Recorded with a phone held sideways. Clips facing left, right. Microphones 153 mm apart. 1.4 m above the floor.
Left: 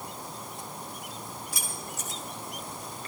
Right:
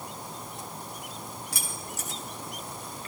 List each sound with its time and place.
1.5 s keys jangling: 80° right, 4 m